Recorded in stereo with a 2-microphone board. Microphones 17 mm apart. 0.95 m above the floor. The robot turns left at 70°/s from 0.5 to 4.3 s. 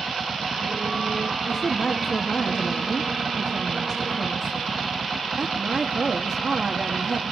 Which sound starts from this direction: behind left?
A woman speaking, at 1.4 s.